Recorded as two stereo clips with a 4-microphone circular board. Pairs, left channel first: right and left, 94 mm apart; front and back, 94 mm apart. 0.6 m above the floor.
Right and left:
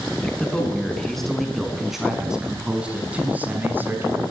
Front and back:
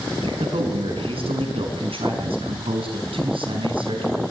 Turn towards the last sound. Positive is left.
turn(degrees=155)